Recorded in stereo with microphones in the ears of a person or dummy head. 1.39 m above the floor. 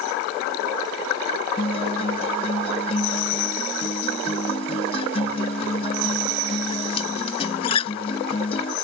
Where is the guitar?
35° left (ahead or behind).